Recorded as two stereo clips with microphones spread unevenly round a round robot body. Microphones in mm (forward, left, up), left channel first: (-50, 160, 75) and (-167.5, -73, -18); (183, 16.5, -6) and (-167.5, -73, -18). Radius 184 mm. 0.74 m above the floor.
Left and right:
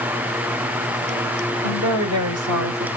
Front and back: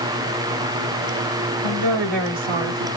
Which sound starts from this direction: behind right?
A woman speaking, at 1.6 s.